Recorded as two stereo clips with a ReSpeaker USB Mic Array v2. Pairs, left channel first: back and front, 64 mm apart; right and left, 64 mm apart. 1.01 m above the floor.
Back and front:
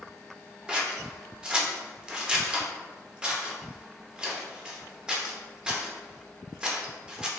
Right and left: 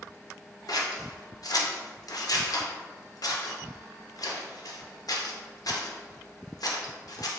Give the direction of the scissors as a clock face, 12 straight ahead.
2 o'clock.